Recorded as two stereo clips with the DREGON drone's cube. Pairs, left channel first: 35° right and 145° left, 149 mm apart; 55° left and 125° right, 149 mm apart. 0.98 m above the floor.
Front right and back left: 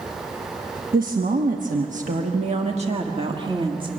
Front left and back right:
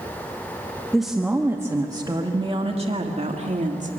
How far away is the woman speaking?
About 1.1 m.